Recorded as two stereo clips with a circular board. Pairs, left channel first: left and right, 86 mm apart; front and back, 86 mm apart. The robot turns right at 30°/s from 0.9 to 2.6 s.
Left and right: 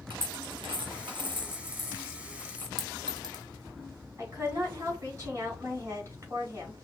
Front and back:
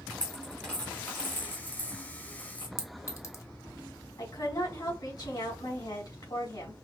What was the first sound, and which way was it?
A dropped coin, 75° right.